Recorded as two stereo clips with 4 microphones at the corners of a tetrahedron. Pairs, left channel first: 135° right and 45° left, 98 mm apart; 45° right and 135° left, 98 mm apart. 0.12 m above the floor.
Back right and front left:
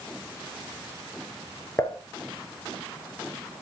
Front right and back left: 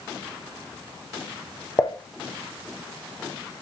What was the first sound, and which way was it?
Dishes clattering, 85° right.